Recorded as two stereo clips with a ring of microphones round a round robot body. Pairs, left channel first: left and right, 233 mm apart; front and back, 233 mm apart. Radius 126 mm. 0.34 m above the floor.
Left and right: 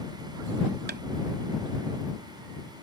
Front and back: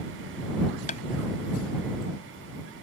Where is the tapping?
50° right.